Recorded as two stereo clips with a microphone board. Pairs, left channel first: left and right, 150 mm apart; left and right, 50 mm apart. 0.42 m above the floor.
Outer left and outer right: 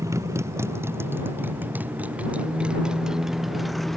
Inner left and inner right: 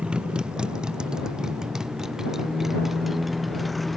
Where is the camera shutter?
No camera shutter in this recording.